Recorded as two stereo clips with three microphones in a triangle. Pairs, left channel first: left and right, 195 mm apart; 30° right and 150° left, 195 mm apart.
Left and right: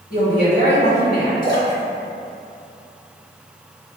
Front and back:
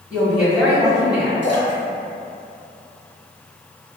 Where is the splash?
25° left, 1.8 m.